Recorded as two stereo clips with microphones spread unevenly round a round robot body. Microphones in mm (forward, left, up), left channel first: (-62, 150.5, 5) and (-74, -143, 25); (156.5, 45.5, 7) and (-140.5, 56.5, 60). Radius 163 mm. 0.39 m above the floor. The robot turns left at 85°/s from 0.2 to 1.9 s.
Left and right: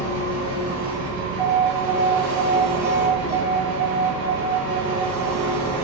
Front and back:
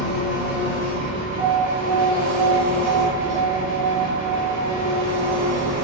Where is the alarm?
20° right, 0.8 m; by 5.8 s 65° right, 0.8 m.